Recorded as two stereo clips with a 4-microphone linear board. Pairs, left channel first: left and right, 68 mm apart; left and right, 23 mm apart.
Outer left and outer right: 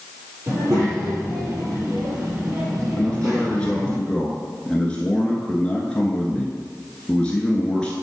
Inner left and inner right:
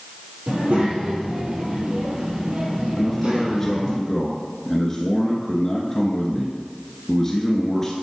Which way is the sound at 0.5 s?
45° right (ahead or behind).